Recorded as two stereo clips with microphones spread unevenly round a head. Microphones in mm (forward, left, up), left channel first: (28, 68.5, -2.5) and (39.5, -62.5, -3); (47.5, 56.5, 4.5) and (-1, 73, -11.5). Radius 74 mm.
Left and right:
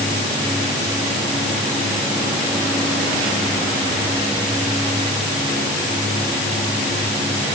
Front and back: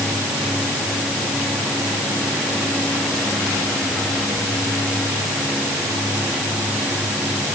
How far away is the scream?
No scream in this recording.